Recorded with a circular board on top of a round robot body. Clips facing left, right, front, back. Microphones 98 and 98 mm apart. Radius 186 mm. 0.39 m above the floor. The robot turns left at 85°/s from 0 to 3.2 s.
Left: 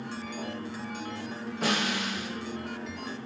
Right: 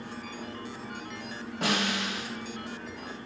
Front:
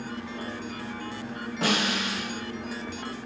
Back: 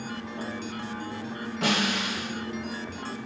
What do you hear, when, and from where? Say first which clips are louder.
1.6 s a snare drum: even, even; 55° right, 1.6 m; by 2.3 s 110° right, 1.6 m